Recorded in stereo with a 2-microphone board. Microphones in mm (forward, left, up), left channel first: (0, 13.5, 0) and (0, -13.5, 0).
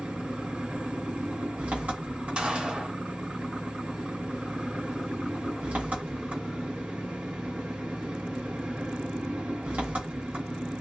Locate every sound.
0.0 s an engine running: 80° right, 1.1 m
2.4 s a gunshot: 45° right (ahead or behind), 1.5 m